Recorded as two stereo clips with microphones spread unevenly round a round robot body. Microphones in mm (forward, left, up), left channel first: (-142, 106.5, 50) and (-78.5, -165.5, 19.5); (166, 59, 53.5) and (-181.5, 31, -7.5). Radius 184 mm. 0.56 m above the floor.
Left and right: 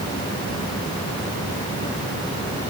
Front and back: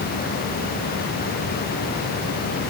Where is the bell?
I don't hear a bell.